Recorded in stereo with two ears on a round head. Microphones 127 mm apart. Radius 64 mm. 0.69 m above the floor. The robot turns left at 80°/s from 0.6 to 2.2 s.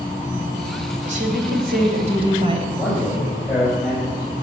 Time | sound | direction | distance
1.1 | a woman speaking | 45° right | 3 m
2.8 | a man speaking | 5° left (ahead or behind) | 5 m